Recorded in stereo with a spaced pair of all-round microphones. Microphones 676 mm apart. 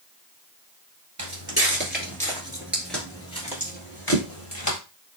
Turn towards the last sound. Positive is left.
turn(degrees=25)  # may be behind; listen again after turning